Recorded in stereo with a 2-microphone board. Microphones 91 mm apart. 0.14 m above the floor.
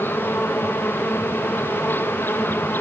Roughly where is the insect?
Left.